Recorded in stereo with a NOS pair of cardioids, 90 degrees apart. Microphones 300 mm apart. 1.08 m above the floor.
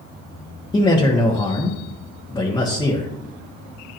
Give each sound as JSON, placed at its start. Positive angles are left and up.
{"t": 0.7, "sound": "a man speaking", "azimuth_deg": 15, "distance_m": 1.3}